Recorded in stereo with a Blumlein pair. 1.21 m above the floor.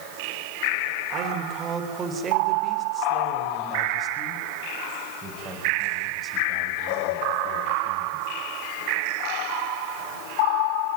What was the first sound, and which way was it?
A man speaking, 30° right.